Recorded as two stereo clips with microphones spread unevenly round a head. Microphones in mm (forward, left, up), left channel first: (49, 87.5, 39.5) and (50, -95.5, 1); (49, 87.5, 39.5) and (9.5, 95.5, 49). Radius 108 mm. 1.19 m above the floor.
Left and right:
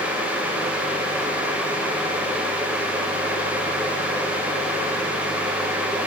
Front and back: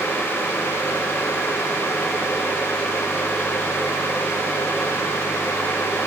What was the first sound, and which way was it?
Only background noise.